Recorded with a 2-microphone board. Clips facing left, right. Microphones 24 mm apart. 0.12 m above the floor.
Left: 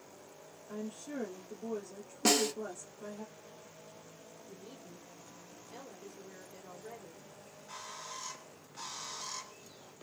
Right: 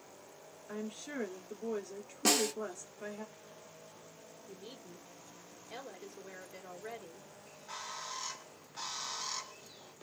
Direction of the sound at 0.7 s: 45° right (ahead or behind).